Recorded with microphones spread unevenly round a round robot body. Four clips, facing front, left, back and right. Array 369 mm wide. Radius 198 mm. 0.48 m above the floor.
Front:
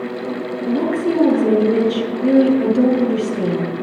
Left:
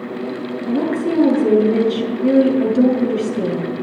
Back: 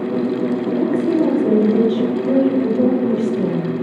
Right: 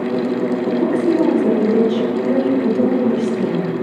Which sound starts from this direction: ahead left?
A woman speaking, at 0.7 s.